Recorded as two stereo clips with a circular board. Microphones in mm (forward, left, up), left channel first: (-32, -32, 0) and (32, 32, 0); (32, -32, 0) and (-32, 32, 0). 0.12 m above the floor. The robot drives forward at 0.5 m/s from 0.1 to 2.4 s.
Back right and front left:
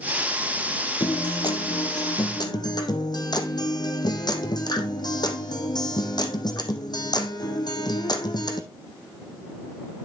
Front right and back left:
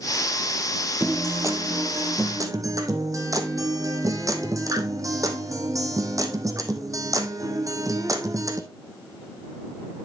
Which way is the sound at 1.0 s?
165° right.